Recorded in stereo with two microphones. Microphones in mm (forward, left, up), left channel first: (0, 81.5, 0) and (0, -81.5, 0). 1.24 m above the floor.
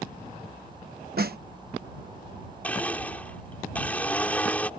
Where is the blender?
10° left (ahead or behind).